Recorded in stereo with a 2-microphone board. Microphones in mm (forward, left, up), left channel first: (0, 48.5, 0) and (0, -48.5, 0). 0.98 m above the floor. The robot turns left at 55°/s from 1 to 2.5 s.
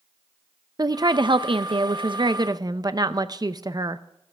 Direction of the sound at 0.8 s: 50° right.